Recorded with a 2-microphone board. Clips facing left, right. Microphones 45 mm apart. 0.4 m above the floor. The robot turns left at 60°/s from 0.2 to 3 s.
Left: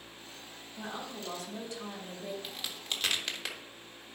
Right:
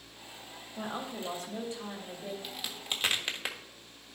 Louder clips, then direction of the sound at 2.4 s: Right 1 dB; 5° left (ahead or behind).